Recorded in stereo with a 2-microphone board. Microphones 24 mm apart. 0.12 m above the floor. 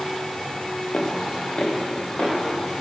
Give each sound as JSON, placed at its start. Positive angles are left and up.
{"t": 0.9, "sound": "footsteps", "side_deg": 40, "distance_m": 1.3}